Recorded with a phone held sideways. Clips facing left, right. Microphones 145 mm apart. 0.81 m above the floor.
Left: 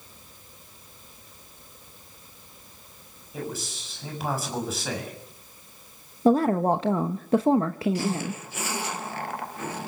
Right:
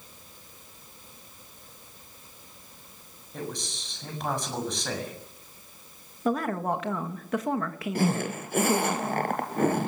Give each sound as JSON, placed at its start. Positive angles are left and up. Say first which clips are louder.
{"t": 3.3, "sound": "a man speaking", "louder": "left 2 dB", "side_deg": 5, "distance_m": 7.0}
{"t": 6.2, "sound": "a woman speaking", "louder": "left 7 dB", "side_deg": 30, "distance_m": 0.8}
{"t": 8.0, "sound": "a zipper", "louder": "right 2 dB", "side_deg": -55, "distance_m": 2.5}